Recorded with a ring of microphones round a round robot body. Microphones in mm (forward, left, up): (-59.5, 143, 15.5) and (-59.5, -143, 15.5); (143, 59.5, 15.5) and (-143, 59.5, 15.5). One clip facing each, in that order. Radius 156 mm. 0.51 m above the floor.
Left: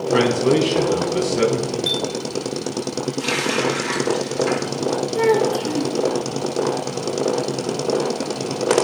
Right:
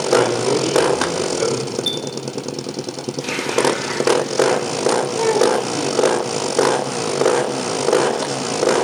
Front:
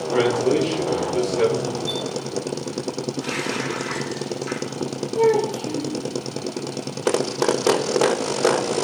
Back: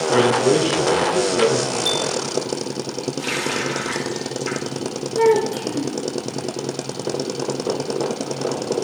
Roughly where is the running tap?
Behind left.